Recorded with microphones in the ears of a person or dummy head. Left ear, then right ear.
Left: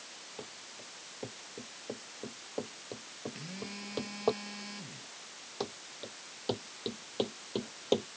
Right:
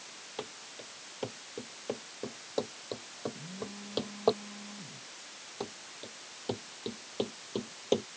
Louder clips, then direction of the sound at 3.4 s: Even; 70° left (ahead or behind).